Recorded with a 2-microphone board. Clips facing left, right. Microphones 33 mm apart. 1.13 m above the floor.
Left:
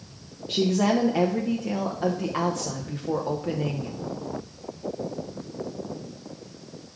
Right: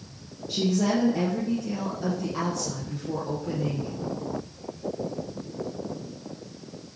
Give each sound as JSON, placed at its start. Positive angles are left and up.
{"t": 0.5, "sound": "a woman speaking", "side_deg": 45, "distance_m": 0.6}